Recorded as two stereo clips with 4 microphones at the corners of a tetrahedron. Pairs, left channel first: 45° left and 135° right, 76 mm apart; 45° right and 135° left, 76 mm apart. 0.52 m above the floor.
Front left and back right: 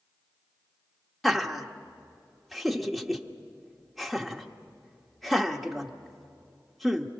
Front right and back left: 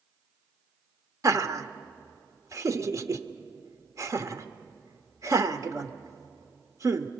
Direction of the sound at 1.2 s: 135° left.